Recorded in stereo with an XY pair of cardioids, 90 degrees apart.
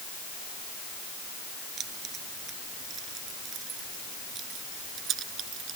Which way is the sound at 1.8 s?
70° right.